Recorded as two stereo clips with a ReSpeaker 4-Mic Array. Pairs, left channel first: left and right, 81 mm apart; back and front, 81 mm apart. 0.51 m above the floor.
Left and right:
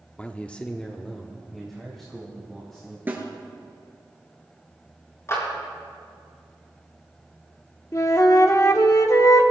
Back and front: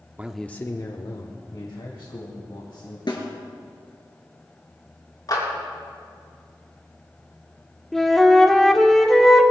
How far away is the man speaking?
About 0.8 m.